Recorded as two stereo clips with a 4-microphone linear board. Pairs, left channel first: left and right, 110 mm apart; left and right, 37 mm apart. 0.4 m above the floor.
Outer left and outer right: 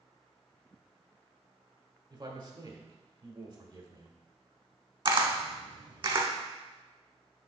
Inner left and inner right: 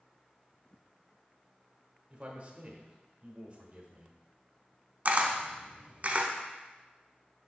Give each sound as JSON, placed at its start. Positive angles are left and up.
{"t": 2.1, "sound": "a man speaking", "side_deg": -45, "distance_m": 1.1}
{"t": 5.0, "sound": "a camera shutter", "side_deg": -45, "distance_m": 0.8}